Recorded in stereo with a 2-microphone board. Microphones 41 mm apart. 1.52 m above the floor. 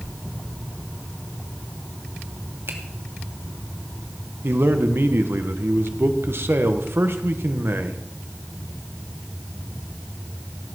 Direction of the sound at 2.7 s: 80° right.